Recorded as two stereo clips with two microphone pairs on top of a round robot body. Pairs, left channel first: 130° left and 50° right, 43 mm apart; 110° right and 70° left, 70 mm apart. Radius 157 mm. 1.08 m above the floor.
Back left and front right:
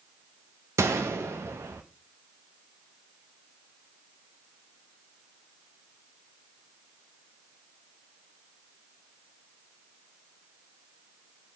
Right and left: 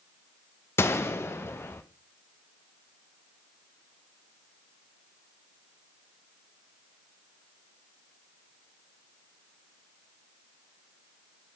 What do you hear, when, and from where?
0.8 s a gunshot: 55° right, 0.7 m